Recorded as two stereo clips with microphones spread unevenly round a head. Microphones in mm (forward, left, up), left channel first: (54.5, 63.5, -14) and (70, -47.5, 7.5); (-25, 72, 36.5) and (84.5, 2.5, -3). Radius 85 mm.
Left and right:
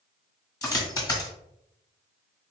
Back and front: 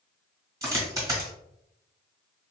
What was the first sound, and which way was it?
A dropped coin, 40° left.